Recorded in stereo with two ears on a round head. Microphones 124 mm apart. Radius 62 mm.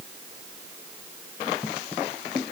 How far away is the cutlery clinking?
No cutlery clinking in this recording.